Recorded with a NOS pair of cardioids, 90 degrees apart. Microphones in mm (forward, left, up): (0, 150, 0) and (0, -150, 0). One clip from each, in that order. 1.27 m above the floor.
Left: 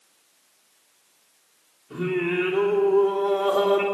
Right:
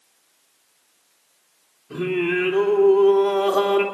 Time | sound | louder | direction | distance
1.9 | singing | right 3 dB | 30° right | 3 m